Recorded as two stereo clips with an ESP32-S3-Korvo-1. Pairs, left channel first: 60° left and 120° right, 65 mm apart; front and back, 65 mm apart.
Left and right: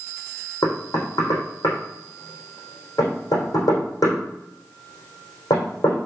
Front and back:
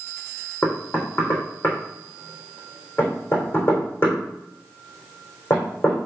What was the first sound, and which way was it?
Knocking, 55° left.